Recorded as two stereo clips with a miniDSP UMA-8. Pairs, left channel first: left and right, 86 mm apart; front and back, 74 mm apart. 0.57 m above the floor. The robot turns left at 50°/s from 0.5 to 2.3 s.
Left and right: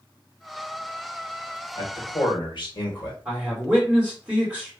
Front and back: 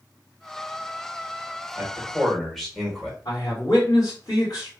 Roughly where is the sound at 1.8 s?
Behind left.